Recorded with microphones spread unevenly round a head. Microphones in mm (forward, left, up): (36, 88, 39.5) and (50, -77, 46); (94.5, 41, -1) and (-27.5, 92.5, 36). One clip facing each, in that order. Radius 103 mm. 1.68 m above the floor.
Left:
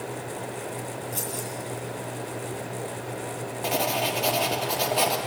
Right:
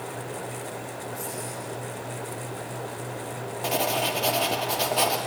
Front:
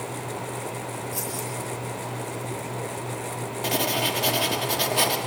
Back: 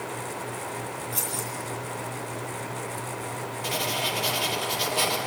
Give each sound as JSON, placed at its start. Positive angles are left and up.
{"t": 1.1, "sound": "keys jangling", "azimuth_deg": 95, "distance_m": 9.0}
{"t": 3.6, "sound": "writing", "azimuth_deg": 5, "distance_m": 2.0}